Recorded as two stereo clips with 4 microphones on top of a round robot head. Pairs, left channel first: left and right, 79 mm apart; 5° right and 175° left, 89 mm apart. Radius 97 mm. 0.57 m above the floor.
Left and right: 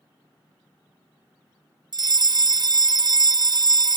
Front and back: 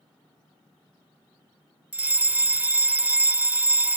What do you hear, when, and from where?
1.9 s a fire alarm: 110° right